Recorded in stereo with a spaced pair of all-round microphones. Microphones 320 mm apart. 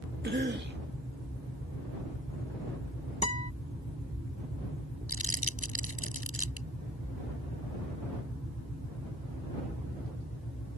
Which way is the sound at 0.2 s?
30° right (ahead or behind).